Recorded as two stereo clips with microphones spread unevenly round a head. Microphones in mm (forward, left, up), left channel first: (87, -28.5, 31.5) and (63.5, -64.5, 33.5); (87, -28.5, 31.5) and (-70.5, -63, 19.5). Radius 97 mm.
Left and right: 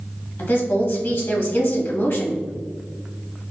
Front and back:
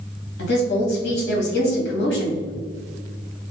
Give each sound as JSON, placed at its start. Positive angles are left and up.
{"t": 0.4, "sound": "a woman speaking", "azimuth_deg": 30, "distance_m": 1.6}